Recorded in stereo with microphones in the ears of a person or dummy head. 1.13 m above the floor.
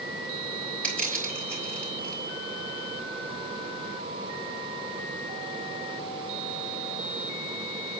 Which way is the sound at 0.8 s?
10° left (ahead or behind).